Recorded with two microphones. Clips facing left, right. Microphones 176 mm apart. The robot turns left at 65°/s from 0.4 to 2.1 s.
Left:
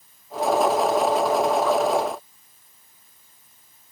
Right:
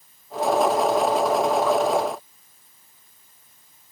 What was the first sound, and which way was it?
Only background noise.